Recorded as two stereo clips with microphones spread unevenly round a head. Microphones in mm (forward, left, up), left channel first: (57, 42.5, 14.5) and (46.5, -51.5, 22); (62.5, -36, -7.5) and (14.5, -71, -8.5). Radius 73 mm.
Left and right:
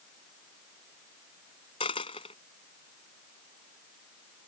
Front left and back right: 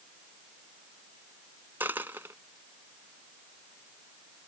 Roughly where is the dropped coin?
Behind left.